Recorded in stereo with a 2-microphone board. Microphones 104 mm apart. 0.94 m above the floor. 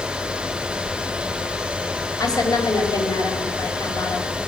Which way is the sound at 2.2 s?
35° left (ahead or behind).